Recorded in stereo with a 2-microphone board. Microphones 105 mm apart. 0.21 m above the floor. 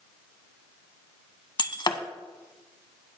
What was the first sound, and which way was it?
Breaking glass, 45° left (ahead or behind).